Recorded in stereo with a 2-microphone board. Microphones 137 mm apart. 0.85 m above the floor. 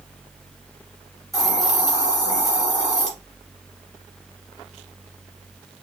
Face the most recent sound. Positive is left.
turn(degrees=0)  # may be behind; listen again after turning